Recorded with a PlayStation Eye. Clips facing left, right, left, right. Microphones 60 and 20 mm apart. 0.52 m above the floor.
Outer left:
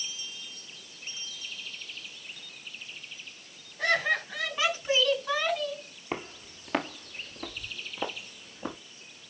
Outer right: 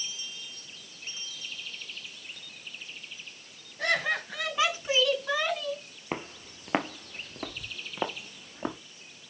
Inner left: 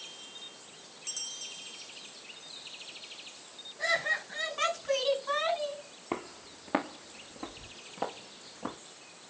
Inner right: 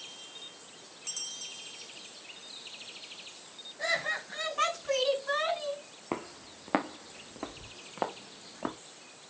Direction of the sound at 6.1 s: 10° right (ahead or behind).